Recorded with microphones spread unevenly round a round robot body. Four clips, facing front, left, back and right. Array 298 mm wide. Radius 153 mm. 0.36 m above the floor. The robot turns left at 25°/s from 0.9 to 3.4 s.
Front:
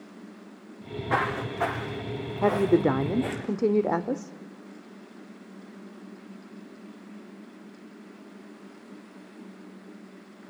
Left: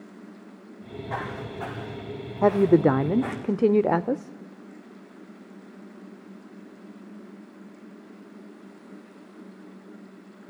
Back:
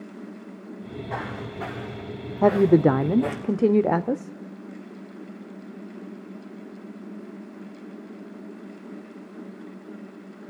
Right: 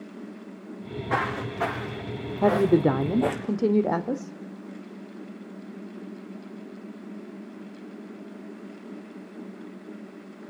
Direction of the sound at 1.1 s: 45° right.